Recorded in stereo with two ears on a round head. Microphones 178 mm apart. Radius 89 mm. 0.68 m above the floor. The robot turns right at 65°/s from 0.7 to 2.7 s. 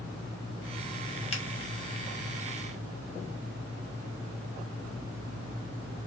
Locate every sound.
1.3 s a finger snap: 30° left (ahead or behind), 1.0 m